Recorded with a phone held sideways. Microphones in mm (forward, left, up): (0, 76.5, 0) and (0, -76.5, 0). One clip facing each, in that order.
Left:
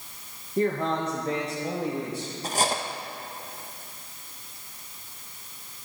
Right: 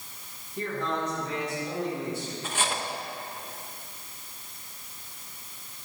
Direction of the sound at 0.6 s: 50° left (ahead or behind).